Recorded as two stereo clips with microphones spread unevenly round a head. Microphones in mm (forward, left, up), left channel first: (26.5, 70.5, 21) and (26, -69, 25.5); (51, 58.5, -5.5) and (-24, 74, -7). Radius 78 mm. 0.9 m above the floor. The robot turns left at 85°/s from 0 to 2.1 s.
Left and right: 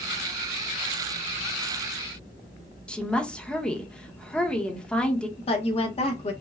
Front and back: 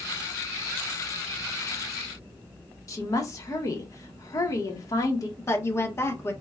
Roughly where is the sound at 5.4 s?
Ahead left.